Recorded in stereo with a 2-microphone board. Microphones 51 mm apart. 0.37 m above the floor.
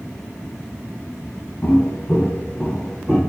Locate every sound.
1.6 s footsteps: 45° left (ahead or behind), 1.7 m; by 3.2 s 15° right (ahead or behind), 1.0 m